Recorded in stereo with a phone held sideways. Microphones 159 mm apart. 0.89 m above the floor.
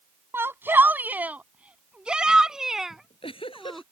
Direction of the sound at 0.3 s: 15° right (ahead or behind).